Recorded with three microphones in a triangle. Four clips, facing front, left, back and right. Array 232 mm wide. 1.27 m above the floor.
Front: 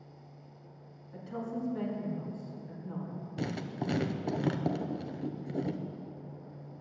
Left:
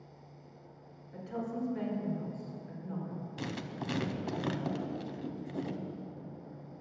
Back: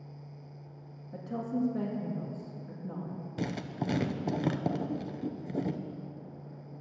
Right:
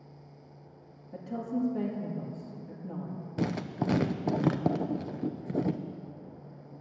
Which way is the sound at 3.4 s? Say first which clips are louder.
Right 10 dB, back 1 dB; 95° right.